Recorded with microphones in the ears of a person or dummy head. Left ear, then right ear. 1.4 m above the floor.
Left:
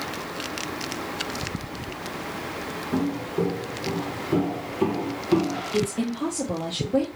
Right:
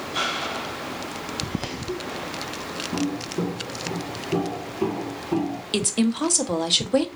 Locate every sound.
2.9 s footsteps: 30° left (ahead or behind), 2.5 m; by 5.6 s 15° left (ahead or behind), 1.6 m
5.7 s a woman speaking: 55° right (ahead or behind), 0.9 m